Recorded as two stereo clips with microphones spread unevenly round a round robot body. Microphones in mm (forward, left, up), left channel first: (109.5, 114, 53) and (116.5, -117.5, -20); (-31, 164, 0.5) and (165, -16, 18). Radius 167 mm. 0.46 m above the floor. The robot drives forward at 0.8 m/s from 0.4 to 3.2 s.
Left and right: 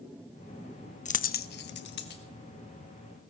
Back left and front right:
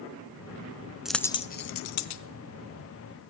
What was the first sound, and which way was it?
A dropped coin, 45° left.